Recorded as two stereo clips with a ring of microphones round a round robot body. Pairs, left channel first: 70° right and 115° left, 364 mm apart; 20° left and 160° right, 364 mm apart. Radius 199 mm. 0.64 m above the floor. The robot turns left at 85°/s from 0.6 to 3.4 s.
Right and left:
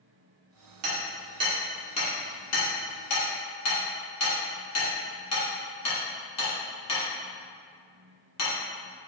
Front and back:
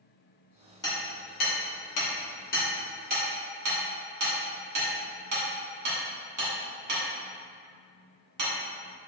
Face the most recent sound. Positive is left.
turn(degrees=-115)